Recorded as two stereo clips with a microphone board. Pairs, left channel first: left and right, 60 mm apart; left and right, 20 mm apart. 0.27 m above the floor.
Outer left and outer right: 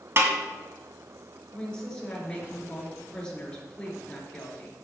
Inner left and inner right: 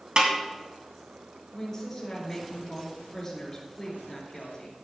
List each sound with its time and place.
0.2 s a snare drum: 45° right (ahead or behind), 2.5 m
1.5 s a woman speaking: 15° left (ahead or behind), 5 m